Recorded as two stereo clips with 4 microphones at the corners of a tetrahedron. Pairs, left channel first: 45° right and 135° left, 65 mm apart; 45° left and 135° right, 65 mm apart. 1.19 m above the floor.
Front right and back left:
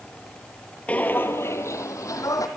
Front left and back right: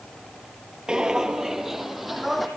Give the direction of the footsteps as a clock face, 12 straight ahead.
3 o'clock.